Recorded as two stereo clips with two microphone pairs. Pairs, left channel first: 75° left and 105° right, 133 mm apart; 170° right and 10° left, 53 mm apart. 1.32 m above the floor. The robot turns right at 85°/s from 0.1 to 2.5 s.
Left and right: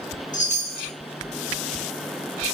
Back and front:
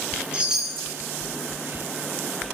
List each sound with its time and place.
0.3 s a chime: 75° left, 2.5 m; by 0.9 s 125° left, 2.5 m